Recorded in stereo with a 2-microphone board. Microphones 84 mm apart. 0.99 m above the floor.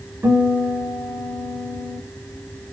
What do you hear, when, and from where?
0.2 s a guitar: 25° right (ahead or behind), 2.5 m